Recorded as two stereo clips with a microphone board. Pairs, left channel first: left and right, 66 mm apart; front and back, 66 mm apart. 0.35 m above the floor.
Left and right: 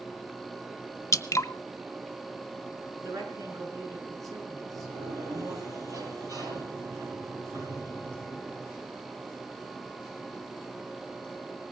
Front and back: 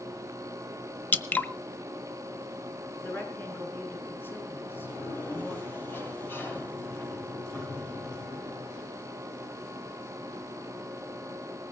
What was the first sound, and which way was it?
Dripping, 60° left.